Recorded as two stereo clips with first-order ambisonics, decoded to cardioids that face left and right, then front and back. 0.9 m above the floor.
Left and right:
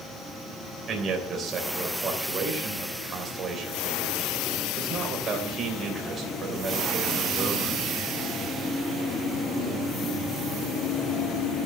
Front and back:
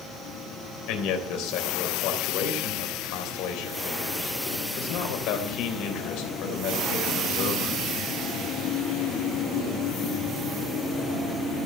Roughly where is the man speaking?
Ahead right.